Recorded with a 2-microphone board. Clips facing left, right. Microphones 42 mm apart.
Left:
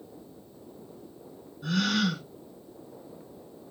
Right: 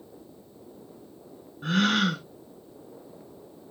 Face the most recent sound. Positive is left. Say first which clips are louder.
# right 3 dB
turn(degrees=-40)  # may be behind; listen again after turning